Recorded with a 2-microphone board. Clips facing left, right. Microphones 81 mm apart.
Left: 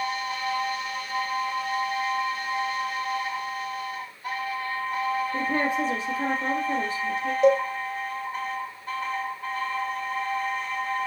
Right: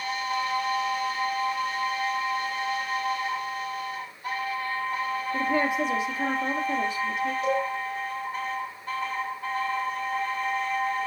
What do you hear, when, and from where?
5.3 s a woman speaking: 35° left (ahead or behind), 3.5 m
7.4 s a cowbell: 70° left (ahead or behind), 3.5 m